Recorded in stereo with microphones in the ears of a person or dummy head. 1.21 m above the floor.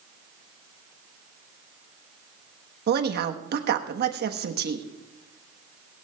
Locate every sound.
2.9 s a woman speaking: 50° right (ahead or behind), 1.2 m